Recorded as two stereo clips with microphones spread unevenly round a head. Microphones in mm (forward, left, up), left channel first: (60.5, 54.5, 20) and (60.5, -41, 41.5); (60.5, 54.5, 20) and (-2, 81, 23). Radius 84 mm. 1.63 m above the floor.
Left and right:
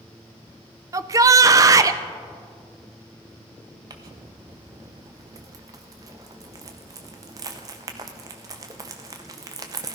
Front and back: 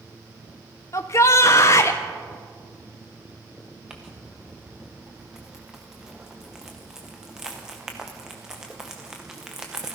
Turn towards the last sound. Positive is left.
turn(degrees=-120)